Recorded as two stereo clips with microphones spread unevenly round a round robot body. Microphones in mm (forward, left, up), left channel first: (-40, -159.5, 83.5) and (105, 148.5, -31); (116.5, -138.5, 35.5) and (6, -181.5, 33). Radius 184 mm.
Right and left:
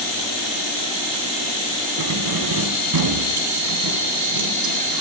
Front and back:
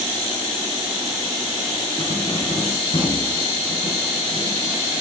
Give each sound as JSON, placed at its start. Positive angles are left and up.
{"t": 2.0, "sound": "keys jangling", "azimuth_deg": 95, "distance_m": 2.5}